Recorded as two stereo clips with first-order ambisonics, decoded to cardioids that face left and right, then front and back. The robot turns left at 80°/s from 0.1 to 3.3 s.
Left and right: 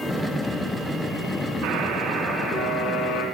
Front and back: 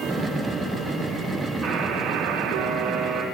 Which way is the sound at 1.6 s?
130° right.